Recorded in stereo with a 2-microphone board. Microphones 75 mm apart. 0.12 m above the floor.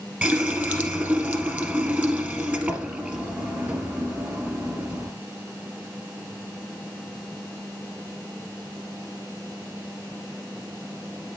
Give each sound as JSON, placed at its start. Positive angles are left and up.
{"t": 0.2, "sound": "a running tap", "side_deg": -20, "distance_m": 1.3}